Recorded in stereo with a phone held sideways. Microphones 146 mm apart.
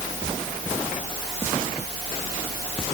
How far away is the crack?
I don't hear a crack.